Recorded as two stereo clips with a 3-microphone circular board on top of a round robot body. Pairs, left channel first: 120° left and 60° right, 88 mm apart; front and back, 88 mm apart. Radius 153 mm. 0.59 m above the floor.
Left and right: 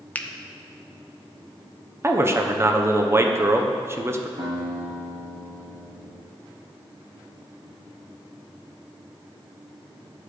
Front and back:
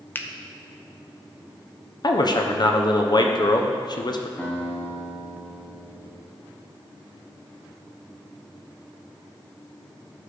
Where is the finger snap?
55° left, 0.8 m.